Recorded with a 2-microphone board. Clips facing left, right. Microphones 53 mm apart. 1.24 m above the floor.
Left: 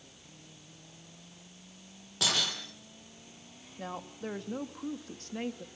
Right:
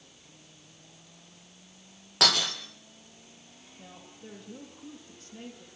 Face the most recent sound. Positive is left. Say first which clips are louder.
# left 10 dB
turn(degrees=80)